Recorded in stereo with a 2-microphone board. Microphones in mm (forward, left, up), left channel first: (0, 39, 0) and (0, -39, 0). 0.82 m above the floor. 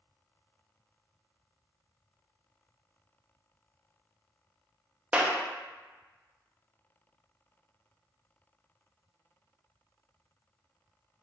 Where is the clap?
15° right (ahead or behind), 0.7 m.